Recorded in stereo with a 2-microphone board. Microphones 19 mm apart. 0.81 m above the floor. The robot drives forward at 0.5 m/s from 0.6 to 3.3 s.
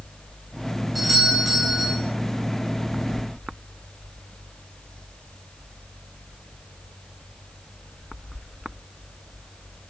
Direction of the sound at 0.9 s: 5° right (ahead or behind).